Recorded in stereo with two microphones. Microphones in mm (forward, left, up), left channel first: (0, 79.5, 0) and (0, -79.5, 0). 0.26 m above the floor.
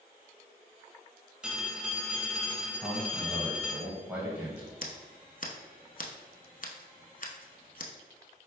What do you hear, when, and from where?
1.4 s a phone ringing: 5° right (ahead or behind), 0.7 m
2.8 s a man speaking: 10° right (ahead or behind), 1.2 m
4.8 s scissors: 60° left (ahead or behind), 0.5 m